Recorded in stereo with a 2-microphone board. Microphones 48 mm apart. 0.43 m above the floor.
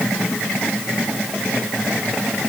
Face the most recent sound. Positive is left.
No sound to turn to.